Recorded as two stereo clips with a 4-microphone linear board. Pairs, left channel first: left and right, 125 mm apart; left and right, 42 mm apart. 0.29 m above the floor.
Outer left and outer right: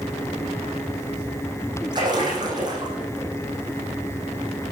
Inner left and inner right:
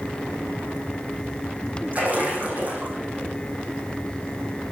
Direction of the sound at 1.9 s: 35° right (ahead or behind).